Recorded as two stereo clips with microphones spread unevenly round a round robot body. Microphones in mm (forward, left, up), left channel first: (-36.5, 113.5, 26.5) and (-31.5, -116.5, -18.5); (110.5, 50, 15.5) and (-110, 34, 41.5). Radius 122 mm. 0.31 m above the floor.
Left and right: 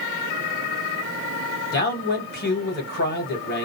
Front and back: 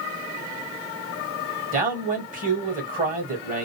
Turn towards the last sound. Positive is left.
turn(degrees=135)